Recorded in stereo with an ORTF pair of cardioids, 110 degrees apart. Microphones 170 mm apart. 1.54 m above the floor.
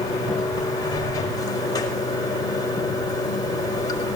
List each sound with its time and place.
0.0 s running water: 20° left, 5 m